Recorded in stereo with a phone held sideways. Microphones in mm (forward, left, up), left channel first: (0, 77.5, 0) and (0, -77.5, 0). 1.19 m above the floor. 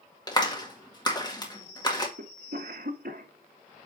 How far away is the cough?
About 1.5 m.